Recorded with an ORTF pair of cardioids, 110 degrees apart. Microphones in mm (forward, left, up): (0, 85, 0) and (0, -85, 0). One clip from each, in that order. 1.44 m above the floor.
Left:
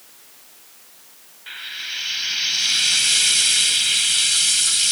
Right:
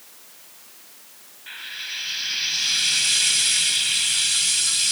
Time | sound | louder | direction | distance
1.5 | frying | left 2 dB | 15° left | 0.9 m